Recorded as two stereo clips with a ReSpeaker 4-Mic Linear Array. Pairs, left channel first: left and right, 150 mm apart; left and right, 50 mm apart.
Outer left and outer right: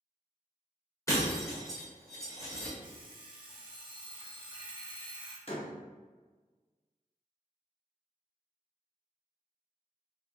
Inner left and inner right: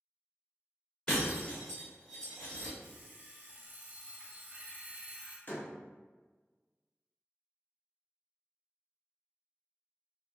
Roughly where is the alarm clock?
Right.